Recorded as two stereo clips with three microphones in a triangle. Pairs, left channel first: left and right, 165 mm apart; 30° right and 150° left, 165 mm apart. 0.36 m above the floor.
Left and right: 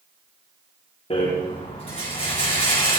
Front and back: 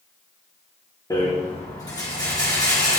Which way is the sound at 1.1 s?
35° left.